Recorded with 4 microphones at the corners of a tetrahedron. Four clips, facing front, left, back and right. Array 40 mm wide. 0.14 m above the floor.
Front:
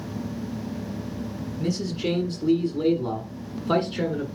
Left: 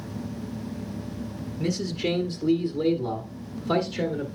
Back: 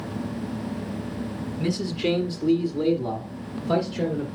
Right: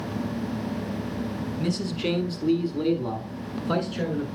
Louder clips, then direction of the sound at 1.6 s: Left 1 dB, back 1 dB; 150° right.